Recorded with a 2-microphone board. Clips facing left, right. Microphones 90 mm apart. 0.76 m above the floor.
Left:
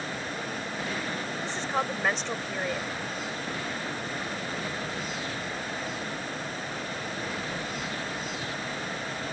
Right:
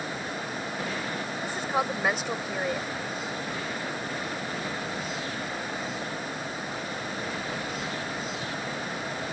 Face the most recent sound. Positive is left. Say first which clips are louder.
# right 2 dB
turn(degrees=-10)  # may be behind; listen again after turning